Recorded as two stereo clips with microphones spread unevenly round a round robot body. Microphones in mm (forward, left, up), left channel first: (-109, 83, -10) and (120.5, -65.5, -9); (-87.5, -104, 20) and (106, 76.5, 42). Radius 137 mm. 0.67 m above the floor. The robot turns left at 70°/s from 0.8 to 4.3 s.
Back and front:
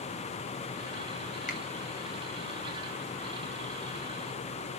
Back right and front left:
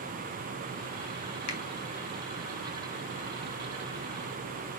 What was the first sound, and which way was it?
A finger snap, 150° right.